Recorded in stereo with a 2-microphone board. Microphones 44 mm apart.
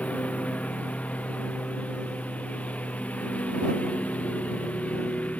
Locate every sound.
0.0 s a lawn mower: 30° left (ahead or behind)